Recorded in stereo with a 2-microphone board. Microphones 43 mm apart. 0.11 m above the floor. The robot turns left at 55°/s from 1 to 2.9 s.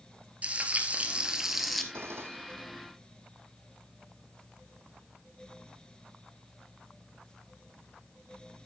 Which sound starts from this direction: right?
A gunshot, at 1.9 s.